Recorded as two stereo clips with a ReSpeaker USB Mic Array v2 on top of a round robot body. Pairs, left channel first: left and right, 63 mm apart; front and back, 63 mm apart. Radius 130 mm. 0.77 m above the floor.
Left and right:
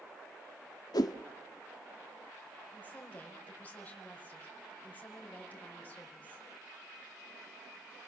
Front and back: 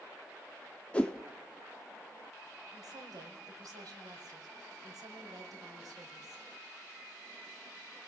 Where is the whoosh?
75° left, 0.9 m.